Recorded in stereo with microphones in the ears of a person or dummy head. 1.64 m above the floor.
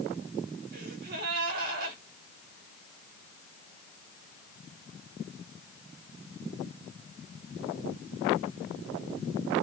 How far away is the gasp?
About 1.9 m.